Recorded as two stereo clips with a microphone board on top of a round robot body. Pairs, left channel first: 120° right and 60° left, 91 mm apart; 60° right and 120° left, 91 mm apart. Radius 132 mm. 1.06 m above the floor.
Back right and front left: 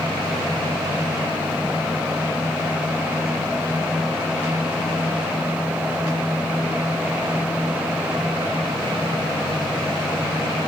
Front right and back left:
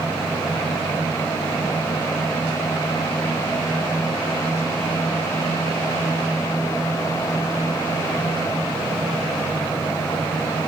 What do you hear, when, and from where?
Only background noise.